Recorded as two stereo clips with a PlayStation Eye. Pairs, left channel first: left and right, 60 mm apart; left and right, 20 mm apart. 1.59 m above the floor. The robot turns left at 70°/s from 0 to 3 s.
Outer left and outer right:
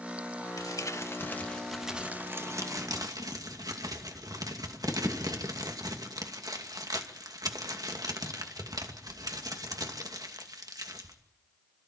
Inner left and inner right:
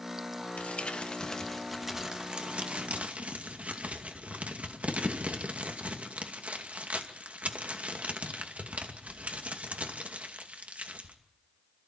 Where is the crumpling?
80° left, 2.5 m; by 11.2 s 85° right, 2.5 m.